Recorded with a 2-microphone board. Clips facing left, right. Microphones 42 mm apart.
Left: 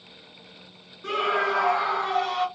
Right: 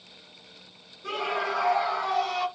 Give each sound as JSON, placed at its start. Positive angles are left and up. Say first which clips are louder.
{"t": 1.0, "sound": "a scream", "louder": "left 5 dB", "side_deg": 60, "distance_m": 3.0}